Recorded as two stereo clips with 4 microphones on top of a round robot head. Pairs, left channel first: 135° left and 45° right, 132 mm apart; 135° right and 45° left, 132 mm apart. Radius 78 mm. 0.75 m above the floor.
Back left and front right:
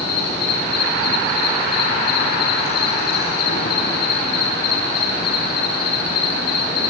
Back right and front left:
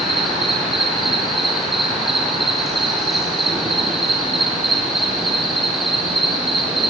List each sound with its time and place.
0.0 s an insect: 135° left, 5.5 m